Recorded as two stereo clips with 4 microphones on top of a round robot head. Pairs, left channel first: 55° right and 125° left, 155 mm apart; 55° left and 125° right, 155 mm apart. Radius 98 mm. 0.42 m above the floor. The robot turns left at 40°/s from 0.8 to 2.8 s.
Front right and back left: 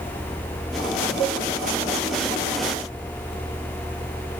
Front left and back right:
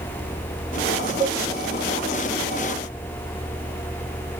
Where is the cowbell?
165° left, 6 m; by 1.4 s 160° left, 6 m.